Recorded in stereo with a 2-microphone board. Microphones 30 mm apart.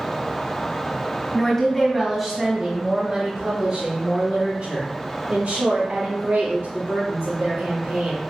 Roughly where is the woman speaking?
Left.